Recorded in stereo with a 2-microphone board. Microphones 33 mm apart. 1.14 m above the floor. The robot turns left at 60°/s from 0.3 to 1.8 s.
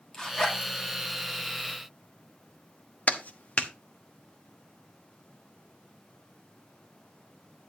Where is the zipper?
20° left (ahead or behind), 3 m; by 0.7 s 45° left (ahead or behind), 3 m.